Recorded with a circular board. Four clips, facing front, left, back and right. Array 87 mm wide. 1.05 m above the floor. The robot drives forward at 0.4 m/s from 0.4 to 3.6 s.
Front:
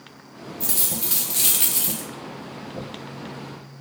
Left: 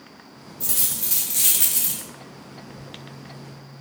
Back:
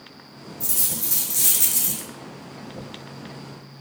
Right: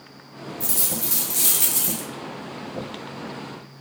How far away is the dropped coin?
About 0.9 m.